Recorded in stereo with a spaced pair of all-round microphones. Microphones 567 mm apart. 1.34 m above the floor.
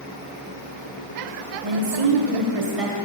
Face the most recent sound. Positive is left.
turn(degrees=-75)  # may be behind; listen again after turning